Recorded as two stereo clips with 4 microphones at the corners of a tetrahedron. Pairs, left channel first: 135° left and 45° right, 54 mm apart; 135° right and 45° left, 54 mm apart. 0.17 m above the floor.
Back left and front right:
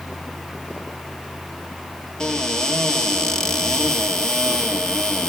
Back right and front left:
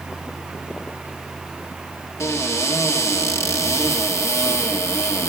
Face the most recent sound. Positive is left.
turn(degrees=-145)